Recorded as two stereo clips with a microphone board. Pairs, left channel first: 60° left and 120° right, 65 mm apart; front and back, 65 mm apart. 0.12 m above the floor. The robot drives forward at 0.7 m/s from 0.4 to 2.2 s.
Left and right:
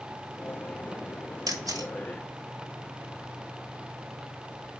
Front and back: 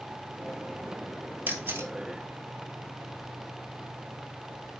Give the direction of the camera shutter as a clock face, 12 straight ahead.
4 o'clock.